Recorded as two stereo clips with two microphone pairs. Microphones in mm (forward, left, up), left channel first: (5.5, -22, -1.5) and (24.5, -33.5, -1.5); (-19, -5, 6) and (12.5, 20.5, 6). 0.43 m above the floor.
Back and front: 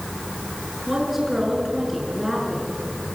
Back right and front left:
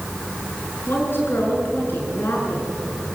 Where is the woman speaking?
115° right, 6.5 m.